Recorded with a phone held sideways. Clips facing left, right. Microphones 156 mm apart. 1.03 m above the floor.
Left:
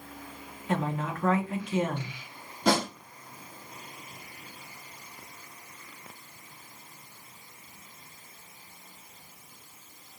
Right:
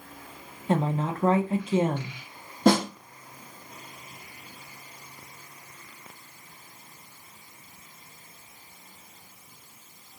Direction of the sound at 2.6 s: 55° right (ahead or behind).